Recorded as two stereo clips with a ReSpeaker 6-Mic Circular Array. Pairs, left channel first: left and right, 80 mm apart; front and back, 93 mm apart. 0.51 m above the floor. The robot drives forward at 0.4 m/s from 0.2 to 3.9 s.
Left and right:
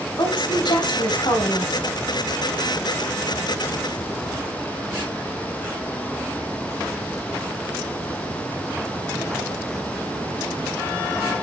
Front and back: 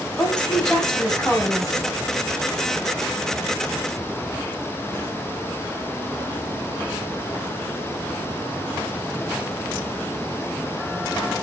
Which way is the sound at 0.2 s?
80° left.